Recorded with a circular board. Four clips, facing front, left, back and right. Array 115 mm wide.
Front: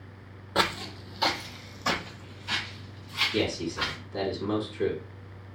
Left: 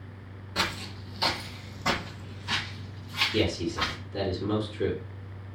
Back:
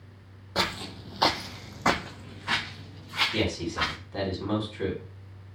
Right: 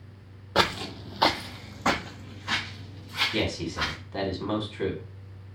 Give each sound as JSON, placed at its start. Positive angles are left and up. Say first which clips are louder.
{"t": 0.6, "sound": "footsteps", "louder": "right 7 dB, front 3 dB", "azimuth_deg": -75, "distance_m": 0.5}
{"t": 3.3, "sound": "a man speaking", "louder": "left 3 dB, front 1 dB", "azimuth_deg": -110, "distance_m": 2.0}